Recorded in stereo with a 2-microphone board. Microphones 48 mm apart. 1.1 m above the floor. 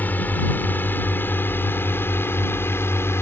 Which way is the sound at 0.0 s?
40° left (ahead or behind).